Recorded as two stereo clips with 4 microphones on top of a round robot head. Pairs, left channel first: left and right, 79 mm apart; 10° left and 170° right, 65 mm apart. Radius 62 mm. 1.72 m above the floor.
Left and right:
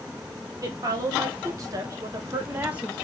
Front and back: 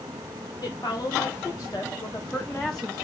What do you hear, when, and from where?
0.6 s a woman speaking: 45° right, 1.9 m; by 2.9 s 150° right, 0.6 m